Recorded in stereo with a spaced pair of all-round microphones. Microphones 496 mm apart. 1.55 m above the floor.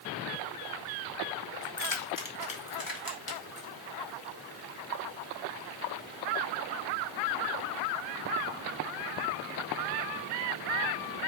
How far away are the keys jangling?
About 1.0 m.